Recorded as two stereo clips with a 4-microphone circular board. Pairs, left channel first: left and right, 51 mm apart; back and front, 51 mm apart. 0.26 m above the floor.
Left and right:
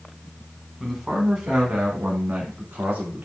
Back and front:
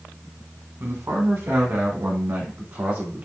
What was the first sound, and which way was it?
A man speaking, 5° right.